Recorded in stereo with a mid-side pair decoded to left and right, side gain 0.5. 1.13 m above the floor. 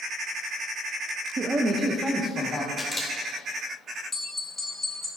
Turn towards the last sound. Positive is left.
turn(degrees=15)